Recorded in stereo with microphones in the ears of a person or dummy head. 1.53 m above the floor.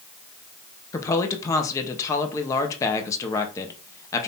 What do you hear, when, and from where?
0.9 s a woman speaking: 15° left (ahead or behind), 0.9 m